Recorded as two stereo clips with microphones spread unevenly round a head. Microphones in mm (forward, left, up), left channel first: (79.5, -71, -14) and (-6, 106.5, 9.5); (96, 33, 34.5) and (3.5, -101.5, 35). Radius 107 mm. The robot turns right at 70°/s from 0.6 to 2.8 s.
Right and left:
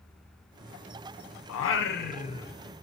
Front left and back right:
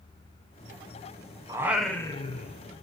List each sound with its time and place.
1.5 s singing: 55° right, 0.5 m; by 2.8 s 35° left, 0.5 m